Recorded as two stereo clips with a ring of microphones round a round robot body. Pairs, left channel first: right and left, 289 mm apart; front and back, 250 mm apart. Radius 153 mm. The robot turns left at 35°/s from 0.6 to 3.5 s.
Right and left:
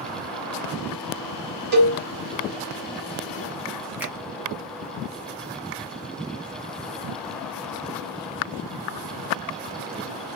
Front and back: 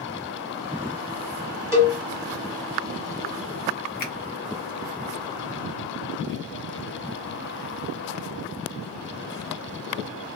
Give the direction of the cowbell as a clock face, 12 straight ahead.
8 o'clock.